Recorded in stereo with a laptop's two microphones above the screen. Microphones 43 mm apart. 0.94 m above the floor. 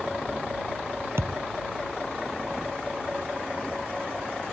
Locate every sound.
1.2 s a thud: 70° right (ahead or behind)